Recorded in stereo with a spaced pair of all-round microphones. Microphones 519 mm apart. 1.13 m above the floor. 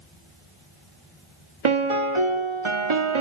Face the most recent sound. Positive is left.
turn(degrees=-70)  # may be behind; listen again after turning